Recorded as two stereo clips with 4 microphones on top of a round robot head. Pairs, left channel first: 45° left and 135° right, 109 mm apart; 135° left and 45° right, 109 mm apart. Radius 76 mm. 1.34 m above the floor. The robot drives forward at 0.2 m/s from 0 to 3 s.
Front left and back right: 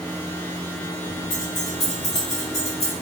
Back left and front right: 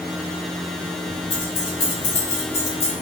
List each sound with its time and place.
1.3 s keys jangling: 90° left, 1.3 m; by 2.9 s 105° left, 1.4 m